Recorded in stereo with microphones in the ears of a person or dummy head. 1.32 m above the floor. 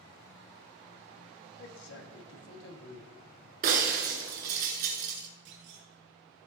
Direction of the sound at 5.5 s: 70° right (ahead or behind).